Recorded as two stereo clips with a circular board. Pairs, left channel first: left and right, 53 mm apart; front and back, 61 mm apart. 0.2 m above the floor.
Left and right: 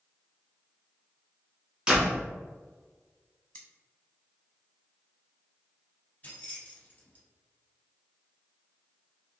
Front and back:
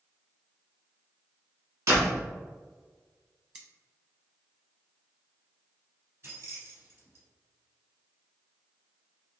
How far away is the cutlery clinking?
About 0.7 m.